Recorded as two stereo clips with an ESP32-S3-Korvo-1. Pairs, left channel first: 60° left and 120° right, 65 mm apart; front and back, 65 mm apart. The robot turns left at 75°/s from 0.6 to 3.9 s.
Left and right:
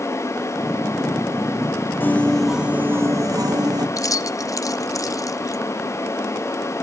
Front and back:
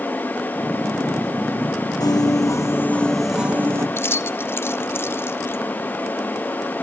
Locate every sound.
2.0 s a piano: 5° left, 0.7 m; by 3.9 s 135° right, 0.7 m
4.0 s keys jangling: 45° left, 0.6 m